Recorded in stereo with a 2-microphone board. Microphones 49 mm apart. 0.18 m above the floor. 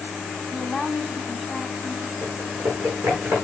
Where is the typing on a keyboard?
70° right (ahead or behind), 6.5 m.